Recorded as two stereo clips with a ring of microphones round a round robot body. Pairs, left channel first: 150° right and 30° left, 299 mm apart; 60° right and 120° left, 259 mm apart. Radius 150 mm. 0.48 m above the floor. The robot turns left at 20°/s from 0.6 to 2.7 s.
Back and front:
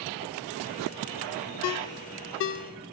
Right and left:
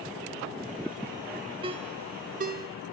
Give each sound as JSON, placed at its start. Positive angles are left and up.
{"t": 1.6, "sound": "a ringtone", "azimuth_deg": -170, "distance_m": 0.6}